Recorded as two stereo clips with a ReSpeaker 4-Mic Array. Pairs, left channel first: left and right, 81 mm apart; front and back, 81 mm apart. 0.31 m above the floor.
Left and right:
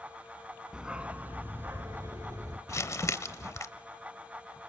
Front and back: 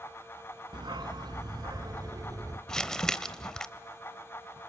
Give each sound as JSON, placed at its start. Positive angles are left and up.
{"t": 0.7, "sound": "a dog barking", "azimuth_deg": -175, "distance_m": 1.0}
{"t": 2.7, "sound": "crumpling", "azimuth_deg": 75, "distance_m": 1.0}